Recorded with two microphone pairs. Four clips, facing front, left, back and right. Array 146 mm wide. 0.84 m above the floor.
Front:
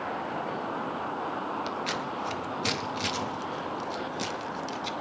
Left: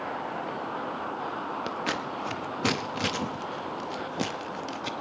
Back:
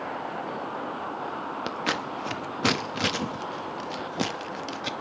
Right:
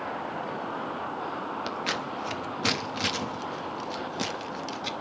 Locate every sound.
1.7 s scissors: 165° left, 0.9 m